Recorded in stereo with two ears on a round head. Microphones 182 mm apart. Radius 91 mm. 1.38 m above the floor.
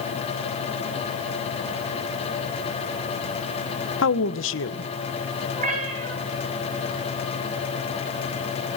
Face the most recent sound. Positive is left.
turn(degrees=-35)  # may be behind; listen again after turning